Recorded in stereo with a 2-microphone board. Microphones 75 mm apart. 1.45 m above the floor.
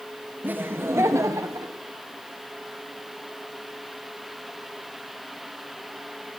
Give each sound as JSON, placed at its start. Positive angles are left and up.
{"t": 0.4, "sound": "laughter", "side_deg": -25, "distance_m": 1.9}